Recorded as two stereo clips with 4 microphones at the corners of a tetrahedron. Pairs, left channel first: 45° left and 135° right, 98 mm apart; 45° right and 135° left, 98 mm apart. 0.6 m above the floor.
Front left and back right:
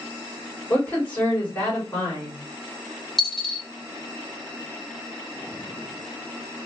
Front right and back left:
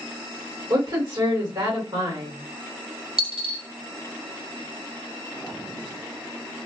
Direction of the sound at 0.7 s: 110° left.